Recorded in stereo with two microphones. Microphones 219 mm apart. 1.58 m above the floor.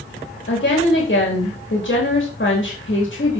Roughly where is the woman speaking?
Left.